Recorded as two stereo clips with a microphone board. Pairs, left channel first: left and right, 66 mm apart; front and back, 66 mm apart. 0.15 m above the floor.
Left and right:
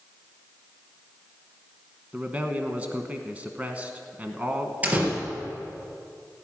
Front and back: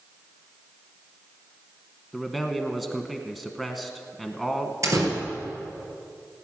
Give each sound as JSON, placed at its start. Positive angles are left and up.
{"t": 2.1, "sound": "a man speaking", "azimuth_deg": -95, "distance_m": 1.1}
{"t": 4.8, "sound": "a door slam", "azimuth_deg": -155, "distance_m": 2.5}